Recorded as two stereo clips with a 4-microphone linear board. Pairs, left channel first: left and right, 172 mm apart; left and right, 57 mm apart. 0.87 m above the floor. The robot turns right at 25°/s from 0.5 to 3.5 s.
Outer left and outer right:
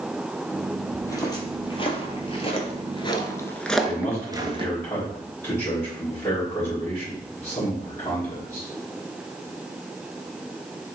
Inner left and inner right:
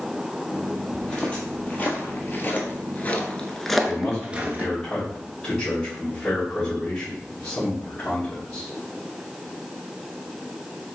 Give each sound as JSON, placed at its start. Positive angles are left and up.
{"t": 0.9, "sound": "footsteps", "side_deg": 15, "distance_m": 1.9}
{"t": 3.7, "sound": "a man speaking", "side_deg": 15, "distance_m": 2.5}